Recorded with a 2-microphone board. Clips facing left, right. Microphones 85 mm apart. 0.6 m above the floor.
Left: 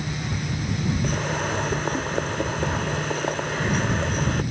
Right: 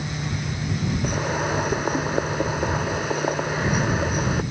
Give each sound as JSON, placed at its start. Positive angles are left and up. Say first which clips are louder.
{"t": 1.0, "sound": "boiling", "louder": "right 1 dB", "side_deg": -10}